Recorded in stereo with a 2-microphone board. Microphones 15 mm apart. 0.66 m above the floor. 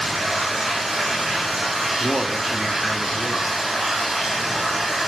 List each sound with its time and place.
0.0 s running water: 20° right (ahead or behind), 5 m
2.0 s a man speaking: 15° right (ahead or behind), 1.5 m